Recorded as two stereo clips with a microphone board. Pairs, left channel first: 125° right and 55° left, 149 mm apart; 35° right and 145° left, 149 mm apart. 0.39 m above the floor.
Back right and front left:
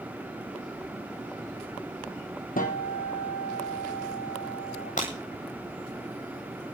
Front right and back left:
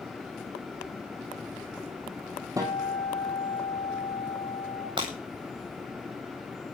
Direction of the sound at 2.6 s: 145° right.